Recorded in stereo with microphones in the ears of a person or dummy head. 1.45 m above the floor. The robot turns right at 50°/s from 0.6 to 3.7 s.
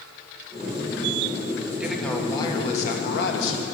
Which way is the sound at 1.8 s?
10° right.